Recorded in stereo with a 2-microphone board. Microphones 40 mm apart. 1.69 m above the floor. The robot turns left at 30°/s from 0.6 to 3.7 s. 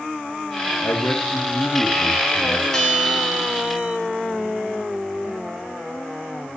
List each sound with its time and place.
0.8 s a man speaking: 85° left, 3 m; by 2.6 s 30° left, 3 m
2.7 s a bell: 15° left (ahead or behind), 4 m; by 4.0 s 15° right (ahead or behind), 4 m